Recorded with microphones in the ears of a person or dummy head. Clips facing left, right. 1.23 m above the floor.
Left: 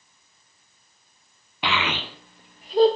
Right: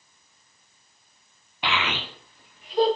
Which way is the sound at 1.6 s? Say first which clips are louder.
Left 2 dB; 70° left (ahead or behind).